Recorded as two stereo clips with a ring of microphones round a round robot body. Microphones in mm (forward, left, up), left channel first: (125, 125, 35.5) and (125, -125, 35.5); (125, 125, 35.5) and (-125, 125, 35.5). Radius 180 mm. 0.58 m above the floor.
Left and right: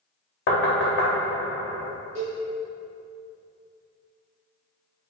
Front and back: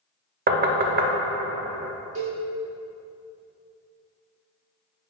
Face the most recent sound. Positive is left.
turn(degrees=-155)